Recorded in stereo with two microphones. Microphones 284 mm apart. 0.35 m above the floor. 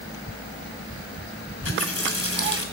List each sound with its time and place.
1.6 s a running tap: 50° left (ahead or behind), 1.5 m